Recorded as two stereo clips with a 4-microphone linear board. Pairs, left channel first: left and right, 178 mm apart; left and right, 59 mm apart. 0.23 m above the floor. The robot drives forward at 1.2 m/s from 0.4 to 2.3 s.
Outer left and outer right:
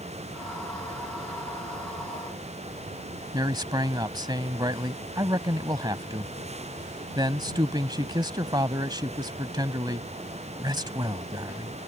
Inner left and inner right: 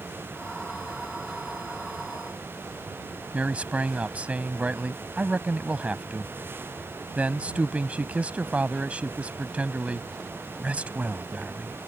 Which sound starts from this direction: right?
A man speaking, at 3.3 s.